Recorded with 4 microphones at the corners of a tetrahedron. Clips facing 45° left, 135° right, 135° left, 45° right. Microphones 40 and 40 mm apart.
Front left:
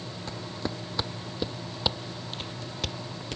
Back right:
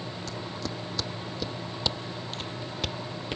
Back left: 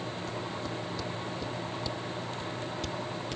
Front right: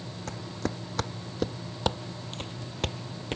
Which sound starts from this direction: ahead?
Footsteps, at 0.3 s.